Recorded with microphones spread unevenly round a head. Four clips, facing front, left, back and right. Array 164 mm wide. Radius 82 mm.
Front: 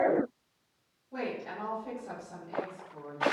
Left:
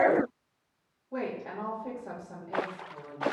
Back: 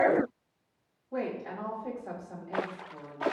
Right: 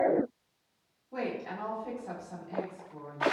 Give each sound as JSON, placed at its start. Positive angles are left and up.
{"t": 1.1, "sound": "a woman speaking", "azimuth_deg": 105, "distance_m": 5.0}